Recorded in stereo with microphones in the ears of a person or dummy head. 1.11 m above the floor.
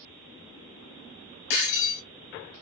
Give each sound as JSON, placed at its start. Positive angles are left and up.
{"t": 1.5, "sound": "breaking glass", "side_deg": 80, "distance_m": 3.0}